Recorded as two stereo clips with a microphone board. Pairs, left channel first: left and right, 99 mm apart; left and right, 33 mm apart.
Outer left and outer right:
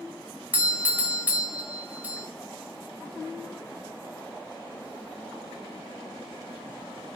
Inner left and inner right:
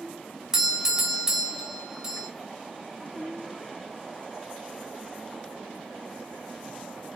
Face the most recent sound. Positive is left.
turn(degrees=-15)  # may be behind; listen again after turning